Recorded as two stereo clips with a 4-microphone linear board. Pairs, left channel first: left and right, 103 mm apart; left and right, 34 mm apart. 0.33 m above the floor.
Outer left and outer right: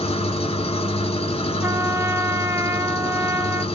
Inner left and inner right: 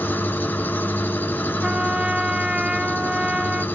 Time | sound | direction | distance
0.0 | an engine running | 80° left | 1.5 m
1.6 | a trumpet | 25° right (ahead or behind) | 0.5 m